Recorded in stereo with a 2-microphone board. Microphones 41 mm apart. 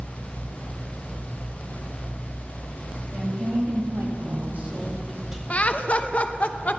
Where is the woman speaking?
80° right, 2 m; by 5.4 s 10° right (ahead or behind), 2 m.